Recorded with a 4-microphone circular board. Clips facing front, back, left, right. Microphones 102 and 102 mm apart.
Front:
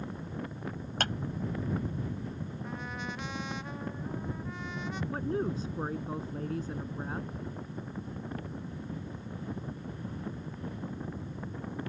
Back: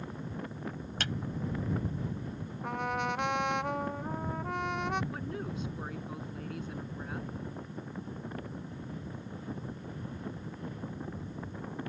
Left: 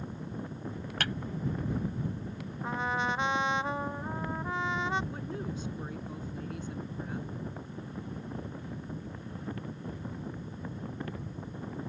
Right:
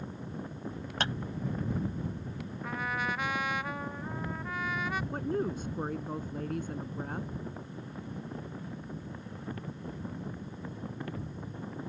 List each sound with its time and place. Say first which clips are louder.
1.0 s a clap: front 4 dB, right 2 dB; 30° right
2.6 s a trumpet: back 9 dB, left 3 dB; 155° left
5.1 s a woman speaking: front 6 dB, right 6 dB; 55° right